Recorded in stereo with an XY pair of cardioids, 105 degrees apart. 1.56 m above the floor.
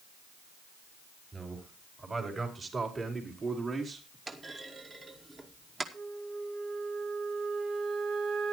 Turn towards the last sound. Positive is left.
turn(degrees=-55)